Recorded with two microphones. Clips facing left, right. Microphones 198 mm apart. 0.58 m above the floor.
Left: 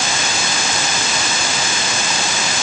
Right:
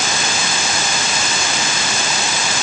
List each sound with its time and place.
Only background noise.